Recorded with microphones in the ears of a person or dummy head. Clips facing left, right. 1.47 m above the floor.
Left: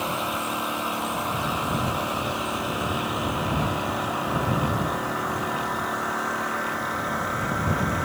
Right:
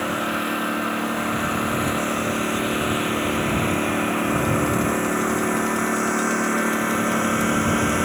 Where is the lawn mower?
25° right (ahead or behind); by 8.1 s 45° right (ahead or behind).